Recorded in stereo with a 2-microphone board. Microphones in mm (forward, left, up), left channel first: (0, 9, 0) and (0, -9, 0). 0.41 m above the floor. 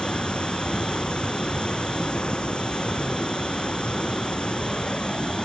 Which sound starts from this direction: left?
Running water, at 0.0 s.